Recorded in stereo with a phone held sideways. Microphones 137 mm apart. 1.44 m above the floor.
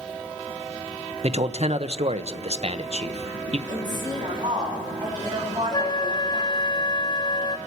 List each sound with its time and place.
1.2 s a man speaking: 55° right (ahead or behind), 0.8 m
3.7 s a woman speaking: 30° right (ahead or behind), 9 m
5.7 s a flute: 35° left (ahead or behind), 0.5 m